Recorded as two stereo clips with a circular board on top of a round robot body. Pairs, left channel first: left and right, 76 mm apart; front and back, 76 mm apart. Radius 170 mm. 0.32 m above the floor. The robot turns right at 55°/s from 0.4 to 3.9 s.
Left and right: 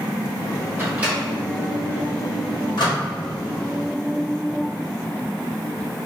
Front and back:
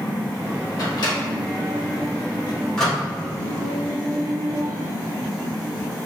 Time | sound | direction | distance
0.8 | a microwave | 30° right | 1.7 m